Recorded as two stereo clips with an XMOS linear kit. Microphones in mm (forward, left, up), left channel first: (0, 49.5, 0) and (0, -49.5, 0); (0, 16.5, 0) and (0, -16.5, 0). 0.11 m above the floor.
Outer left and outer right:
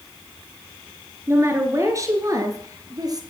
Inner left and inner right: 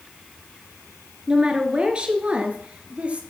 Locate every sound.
1.3 s a woman speaking: 30° right (ahead or behind), 1.7 m; by 3.2 s 45° right (ahead or behind), 1.8 m